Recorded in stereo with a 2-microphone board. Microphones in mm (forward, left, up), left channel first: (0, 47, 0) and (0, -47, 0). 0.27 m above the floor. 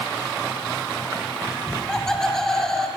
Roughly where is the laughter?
Centre.